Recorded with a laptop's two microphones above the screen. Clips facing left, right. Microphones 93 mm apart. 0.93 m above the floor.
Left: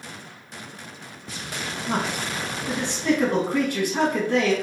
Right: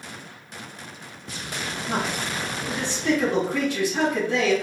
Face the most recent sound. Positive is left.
turn(degrees=50)  # may be behind; listen again after turning